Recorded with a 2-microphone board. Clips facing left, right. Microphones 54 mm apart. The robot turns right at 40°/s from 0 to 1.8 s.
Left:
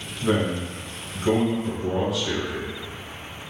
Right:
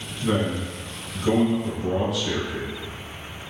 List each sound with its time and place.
0.2 s a man speaking: 115° left, 1.2 m; by 2.7 s straight behind, 1.2 m